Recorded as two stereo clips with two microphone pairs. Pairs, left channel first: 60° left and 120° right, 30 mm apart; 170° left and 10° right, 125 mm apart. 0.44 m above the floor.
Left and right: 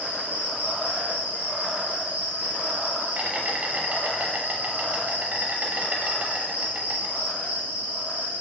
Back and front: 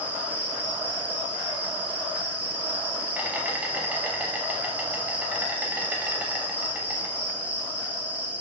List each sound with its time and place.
0.0 s an insect: 90° right, 0.8 m